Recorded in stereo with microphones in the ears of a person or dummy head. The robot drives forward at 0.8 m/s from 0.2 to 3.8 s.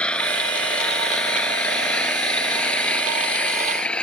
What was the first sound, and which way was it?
An engine running, 5° left (ahead or behind).